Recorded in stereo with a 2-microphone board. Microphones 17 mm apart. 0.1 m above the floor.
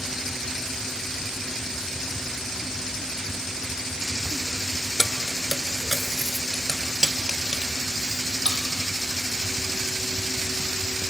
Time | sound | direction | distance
5.0 | keys jangling | 25° left (ahead or behind) | 1.0 m